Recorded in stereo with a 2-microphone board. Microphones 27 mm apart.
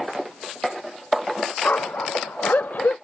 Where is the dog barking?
90° left; by 3.0 s 80° left.